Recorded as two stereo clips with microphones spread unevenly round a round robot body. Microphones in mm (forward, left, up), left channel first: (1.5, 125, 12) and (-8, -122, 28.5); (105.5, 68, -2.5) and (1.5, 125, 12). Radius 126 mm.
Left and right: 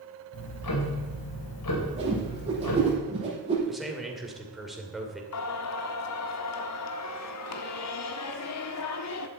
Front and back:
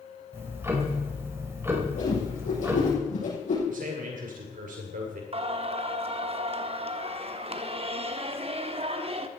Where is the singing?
115° left, 1.3 m.